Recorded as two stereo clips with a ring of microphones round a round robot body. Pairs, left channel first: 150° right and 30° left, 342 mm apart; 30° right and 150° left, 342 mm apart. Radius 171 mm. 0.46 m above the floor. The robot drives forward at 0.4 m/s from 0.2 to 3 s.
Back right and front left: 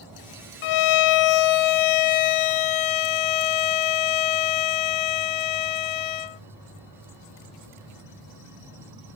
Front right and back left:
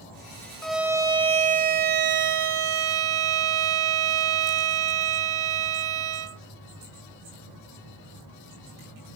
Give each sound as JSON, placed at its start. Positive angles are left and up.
{"t": 0.6, "sound": "a violin", "azimuth_deg": -120}